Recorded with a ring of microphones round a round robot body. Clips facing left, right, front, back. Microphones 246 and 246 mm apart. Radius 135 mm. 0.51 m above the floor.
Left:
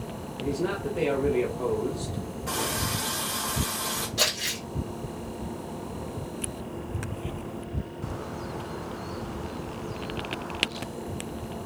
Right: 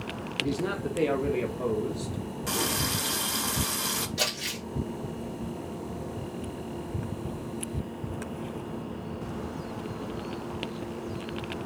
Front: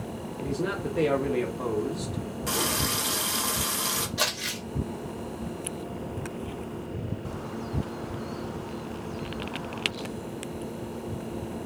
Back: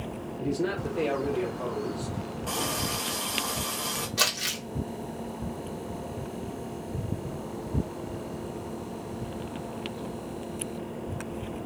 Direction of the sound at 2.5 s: 55° right.